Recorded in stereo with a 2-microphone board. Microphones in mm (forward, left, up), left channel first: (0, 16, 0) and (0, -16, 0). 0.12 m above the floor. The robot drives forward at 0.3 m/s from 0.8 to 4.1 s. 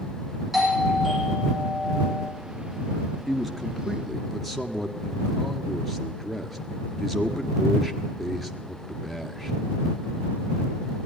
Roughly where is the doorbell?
Centre.